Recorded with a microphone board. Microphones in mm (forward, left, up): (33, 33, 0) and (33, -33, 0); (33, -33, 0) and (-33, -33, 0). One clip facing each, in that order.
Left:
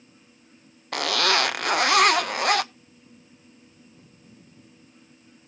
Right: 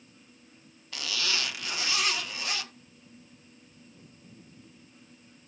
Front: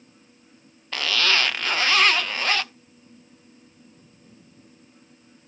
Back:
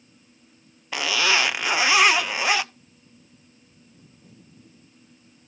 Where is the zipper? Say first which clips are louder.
Left 11 dB, back 1 dB; 105° left, 0.5 m.